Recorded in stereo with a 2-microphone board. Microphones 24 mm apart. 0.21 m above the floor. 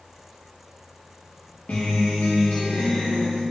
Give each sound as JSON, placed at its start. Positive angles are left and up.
{"t": 1.7, "sound": "a guitar", "side_deg": 60, "distance_m": 3.5}